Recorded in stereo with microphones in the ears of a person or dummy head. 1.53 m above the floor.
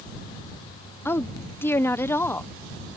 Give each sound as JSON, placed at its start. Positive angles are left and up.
{"t": 1.1, "sound": "a woman speaking", "side_deg": 15}